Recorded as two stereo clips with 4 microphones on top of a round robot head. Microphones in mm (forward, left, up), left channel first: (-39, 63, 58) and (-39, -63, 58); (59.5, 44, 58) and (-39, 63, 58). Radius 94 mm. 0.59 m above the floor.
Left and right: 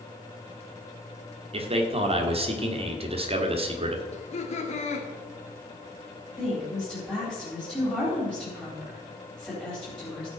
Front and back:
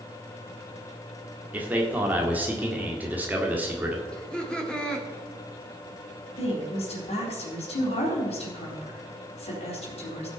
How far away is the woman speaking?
About 4 m.